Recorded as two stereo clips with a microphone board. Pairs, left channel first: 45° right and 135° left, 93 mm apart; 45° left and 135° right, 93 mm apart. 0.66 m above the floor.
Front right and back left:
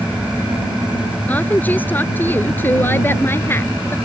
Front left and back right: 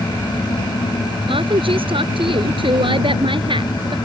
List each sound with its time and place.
1.3 s a woman speaking: 115° right; by 4.0 s 110° right